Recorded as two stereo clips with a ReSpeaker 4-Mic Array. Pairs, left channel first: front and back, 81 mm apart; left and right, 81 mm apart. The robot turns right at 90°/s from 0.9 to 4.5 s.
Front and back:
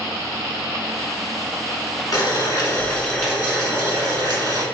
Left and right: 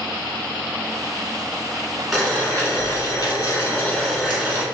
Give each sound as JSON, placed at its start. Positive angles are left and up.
{"t": 2.1, "sound": "boiling", "azimuth_deg": -5, "distance_m": 1.3}